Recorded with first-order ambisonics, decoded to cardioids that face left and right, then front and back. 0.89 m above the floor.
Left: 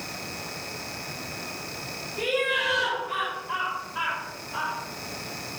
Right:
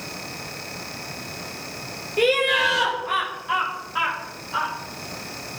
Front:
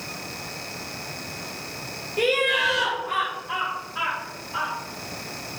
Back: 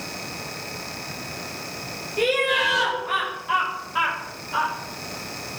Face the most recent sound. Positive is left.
turn(degrees=-145)